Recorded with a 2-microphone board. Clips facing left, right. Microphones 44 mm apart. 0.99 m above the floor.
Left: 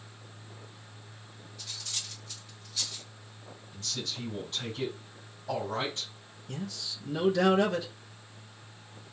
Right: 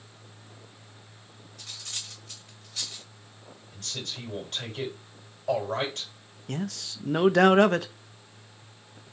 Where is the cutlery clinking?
65° right (ahead or behind), 1.7 m.